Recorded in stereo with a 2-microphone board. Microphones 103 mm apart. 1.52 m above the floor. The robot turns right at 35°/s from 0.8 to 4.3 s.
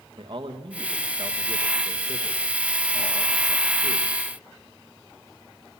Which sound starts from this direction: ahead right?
A man speaking, at 0.2 s.